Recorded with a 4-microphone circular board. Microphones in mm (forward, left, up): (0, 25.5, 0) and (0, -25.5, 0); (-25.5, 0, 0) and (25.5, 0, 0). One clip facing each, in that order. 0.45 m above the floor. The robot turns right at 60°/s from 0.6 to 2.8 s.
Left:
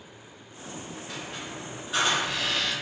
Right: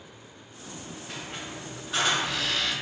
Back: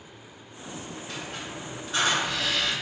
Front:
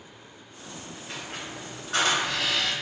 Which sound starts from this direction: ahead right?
A squeak, at 1.1 s.